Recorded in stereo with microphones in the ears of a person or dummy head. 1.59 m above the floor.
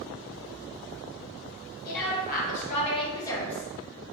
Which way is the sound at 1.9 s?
55° left (ahead or behind).